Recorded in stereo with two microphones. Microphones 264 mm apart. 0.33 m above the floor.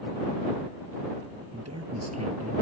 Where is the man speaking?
80° right.